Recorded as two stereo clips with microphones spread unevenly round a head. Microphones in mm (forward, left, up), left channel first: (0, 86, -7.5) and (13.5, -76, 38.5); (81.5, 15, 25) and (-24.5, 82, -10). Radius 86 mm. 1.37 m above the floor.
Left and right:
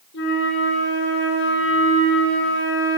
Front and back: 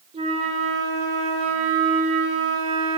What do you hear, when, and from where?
0.1 s a flute: 110° left, 5 m